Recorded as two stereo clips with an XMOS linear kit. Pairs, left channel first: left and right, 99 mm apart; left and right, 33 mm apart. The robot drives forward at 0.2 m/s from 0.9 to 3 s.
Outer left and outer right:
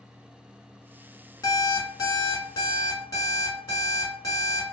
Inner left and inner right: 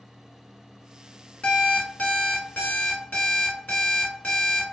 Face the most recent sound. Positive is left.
turn(degrees=35)  # may be behind; listen again after turning